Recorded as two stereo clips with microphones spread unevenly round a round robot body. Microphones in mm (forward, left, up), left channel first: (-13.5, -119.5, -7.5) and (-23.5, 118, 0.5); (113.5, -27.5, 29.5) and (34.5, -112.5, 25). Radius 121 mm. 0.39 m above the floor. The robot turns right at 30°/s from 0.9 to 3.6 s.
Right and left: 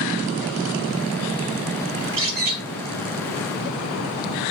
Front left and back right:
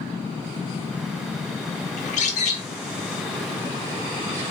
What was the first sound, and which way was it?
A bird, 45° left.